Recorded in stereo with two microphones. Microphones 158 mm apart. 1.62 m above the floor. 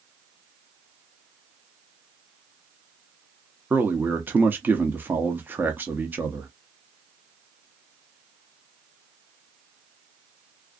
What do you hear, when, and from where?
3.7 s a man speaking: 10° right (ahead or behind), 0.5 m